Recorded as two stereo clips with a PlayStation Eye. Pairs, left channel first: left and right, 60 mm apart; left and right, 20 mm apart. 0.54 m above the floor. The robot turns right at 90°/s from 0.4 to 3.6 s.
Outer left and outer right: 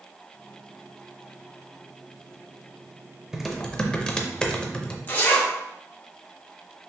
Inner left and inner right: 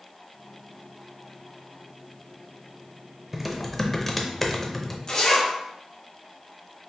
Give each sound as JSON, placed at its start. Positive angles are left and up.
{"t": 3.3, "sound": "typing on a keyboard", "side_deg": -10, "distance_m": 0.5}
{"t": 5.1, "sound": "a zipper", "side_deg": 35, "distance_m": 1.0}